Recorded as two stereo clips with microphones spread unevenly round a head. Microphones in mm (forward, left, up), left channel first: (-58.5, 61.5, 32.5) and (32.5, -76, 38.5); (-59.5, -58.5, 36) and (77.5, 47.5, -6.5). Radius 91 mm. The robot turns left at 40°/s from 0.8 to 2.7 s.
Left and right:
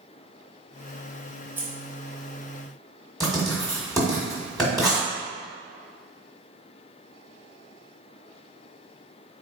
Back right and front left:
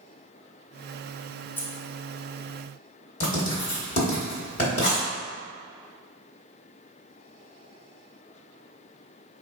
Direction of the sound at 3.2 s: 150° right.